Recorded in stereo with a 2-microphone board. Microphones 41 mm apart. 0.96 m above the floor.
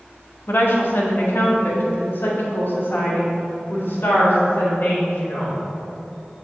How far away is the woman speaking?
About 1.2 m.